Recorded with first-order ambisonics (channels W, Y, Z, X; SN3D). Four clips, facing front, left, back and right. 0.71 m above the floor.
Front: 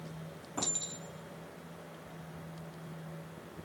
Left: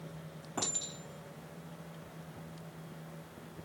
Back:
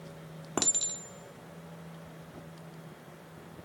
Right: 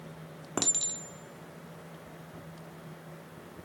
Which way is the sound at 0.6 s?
140° right.